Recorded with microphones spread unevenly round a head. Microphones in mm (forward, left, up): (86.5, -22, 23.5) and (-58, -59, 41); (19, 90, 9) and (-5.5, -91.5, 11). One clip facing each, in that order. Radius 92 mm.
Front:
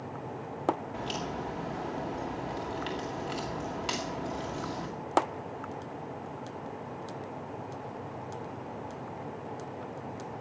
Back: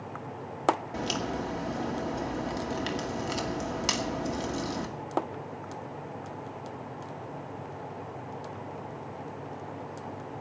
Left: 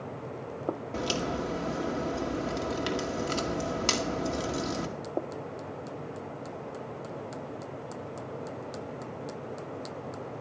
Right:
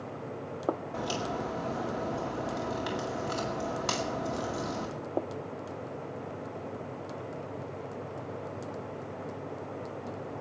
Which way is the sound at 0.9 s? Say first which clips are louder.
Back 3 dB, left 2 dB; 140° left.